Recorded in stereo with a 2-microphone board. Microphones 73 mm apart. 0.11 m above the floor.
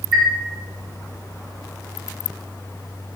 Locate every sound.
0.1 s a chime: centre (ahead or behind), 0.5 m